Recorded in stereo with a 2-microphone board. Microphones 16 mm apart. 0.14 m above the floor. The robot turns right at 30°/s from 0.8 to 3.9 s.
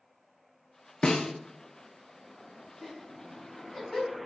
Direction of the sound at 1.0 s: 65° left (ahead or behind).